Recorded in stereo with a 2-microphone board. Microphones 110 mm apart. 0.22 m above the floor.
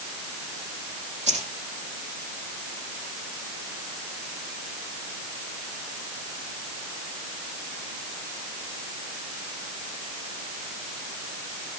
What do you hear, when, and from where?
1.3 s keys jangling: 75° right (ahead or behind), 7.5 m